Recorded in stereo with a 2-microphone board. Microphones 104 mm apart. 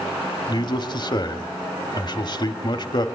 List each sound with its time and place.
0.5 s a man speaking: 45° left (ahead or behind), 1.4 m